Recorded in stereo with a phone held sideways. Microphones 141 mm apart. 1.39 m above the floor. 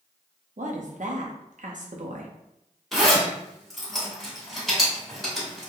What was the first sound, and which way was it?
A woman speaking, 65° right (ahead or behind).